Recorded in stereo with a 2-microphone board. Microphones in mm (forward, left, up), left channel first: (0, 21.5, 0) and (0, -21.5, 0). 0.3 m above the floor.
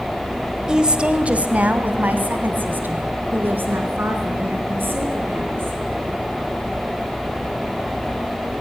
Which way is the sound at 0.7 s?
15° right (ahead or behind).